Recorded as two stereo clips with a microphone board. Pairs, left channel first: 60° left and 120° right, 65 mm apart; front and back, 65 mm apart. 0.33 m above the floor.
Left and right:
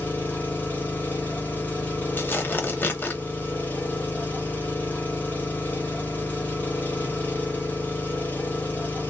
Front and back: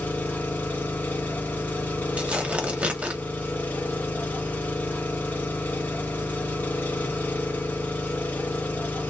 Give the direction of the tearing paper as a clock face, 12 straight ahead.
8 o'clock.